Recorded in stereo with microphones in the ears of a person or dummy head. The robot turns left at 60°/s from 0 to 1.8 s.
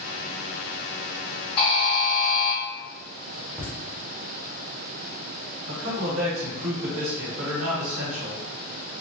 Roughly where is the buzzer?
Left.